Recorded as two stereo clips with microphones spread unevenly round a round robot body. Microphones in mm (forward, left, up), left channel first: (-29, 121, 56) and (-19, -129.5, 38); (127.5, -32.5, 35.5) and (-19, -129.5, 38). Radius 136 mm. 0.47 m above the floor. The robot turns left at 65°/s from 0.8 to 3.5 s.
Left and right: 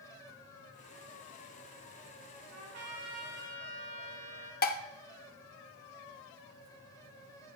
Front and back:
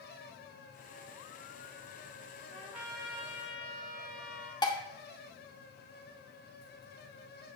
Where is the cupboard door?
No cupboard door in this recording.